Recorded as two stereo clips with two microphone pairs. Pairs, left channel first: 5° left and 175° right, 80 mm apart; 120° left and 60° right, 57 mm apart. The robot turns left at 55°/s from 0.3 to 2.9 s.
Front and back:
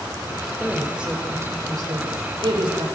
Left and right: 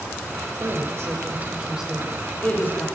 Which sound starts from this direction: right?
A woman speaking, at 0.6 s.